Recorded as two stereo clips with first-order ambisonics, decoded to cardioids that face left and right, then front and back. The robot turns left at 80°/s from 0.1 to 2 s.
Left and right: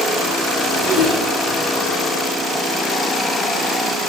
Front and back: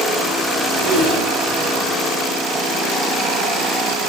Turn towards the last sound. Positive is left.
turn(degrees=135)